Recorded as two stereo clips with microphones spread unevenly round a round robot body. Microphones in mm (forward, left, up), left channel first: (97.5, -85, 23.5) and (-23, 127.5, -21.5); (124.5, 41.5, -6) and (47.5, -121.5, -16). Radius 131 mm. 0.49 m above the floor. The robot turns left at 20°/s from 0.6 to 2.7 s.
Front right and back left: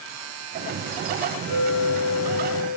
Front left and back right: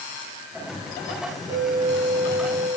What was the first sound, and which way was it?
A clink, 165° left.